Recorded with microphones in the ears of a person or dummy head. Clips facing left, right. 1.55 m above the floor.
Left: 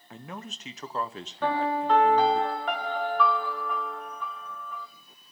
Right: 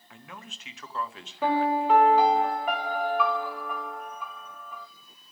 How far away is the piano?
About 2 m.